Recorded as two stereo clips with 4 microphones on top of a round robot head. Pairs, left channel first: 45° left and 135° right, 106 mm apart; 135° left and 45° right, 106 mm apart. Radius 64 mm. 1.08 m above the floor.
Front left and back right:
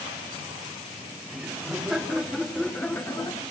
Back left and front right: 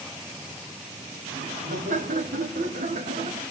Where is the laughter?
50° right, 3 m; by 3.4 s 5° right, 1.2 m.